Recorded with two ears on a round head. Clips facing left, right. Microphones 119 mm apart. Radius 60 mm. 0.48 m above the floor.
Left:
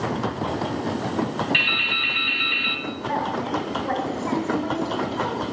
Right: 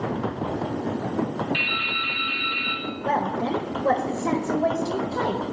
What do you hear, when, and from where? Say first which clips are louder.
1.5 s dripping: left 1 dB; 70° left (ahead or behind), 2 m
3.0 s a woman speaking: right 2 dB; 65° right (ahead or behind), 1.6 m